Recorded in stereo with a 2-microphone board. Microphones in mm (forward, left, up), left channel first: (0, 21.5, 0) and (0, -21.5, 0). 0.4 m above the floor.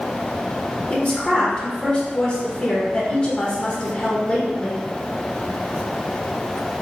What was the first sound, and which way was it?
A woman speaking, 25° left (ahead or behind).